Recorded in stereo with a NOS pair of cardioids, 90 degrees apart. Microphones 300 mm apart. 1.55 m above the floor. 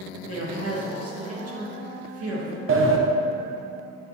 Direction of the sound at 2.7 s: 45° right.